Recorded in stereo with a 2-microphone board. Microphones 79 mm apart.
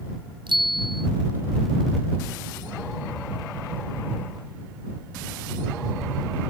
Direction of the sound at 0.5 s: 85° right.